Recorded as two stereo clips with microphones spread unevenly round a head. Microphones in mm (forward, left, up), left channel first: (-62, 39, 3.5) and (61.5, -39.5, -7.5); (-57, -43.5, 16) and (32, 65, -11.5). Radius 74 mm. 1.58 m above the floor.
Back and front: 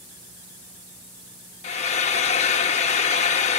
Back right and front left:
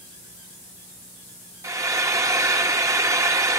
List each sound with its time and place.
1.6 s frying: 125° left, 1.3 m